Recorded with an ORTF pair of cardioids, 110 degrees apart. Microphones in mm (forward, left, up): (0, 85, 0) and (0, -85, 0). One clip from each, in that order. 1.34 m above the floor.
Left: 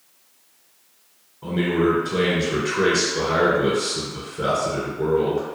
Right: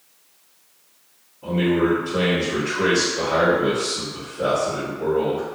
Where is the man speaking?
50° left, 1.2 m.